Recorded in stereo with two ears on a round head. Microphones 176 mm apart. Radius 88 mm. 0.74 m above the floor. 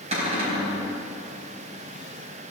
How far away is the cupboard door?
About 4.5 m.